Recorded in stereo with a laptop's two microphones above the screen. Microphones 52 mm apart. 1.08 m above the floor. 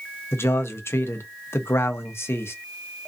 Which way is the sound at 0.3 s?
55° left (ahead or behind).